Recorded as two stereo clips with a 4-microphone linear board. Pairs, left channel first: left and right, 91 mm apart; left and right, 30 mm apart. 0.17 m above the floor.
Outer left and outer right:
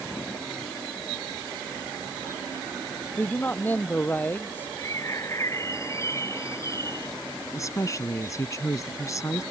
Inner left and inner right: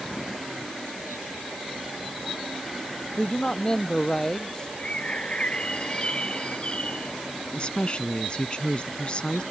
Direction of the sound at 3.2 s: 20° left (ahead or behind).